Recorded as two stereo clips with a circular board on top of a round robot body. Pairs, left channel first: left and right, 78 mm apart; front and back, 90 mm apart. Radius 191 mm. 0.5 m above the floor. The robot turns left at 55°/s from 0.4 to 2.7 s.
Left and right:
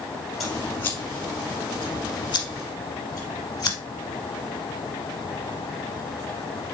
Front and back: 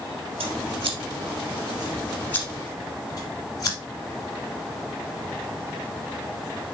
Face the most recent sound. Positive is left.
turn(degrees=50)